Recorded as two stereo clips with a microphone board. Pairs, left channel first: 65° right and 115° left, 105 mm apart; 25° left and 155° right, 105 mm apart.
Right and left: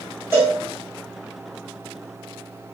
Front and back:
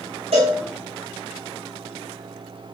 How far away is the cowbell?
About 4.5 m.